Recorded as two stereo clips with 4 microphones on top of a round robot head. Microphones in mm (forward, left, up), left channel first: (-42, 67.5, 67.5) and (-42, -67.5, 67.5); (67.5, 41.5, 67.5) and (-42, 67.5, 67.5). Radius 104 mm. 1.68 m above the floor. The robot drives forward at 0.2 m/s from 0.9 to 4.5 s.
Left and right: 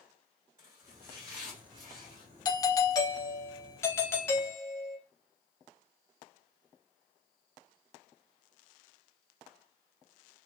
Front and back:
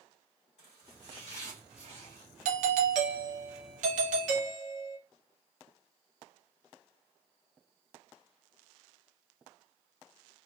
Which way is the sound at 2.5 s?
150° left.